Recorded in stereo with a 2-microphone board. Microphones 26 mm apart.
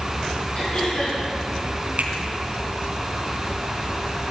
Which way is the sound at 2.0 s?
70° right (ahead or behind).